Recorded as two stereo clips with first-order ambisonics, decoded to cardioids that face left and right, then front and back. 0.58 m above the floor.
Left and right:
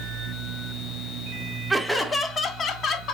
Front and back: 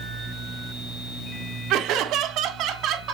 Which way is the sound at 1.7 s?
Straight behind.